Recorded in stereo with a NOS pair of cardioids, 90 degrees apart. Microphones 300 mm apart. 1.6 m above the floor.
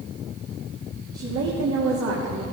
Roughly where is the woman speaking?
Ahead right.